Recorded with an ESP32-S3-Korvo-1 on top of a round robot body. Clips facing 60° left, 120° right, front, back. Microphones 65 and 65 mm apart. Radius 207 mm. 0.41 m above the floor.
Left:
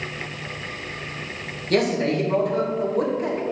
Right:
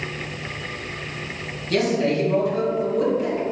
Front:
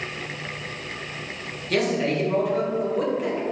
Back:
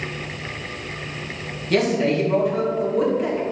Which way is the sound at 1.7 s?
90° left.